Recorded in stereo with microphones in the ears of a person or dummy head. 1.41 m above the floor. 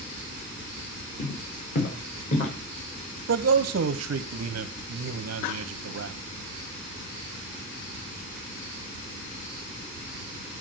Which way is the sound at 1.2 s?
60° left (ahead or behind).